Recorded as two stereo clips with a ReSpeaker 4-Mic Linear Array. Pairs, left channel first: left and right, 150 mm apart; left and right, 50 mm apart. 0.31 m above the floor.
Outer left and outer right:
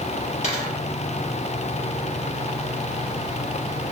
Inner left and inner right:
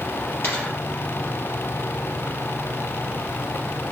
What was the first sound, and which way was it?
A dropped coin, 50° left (ahead or behind).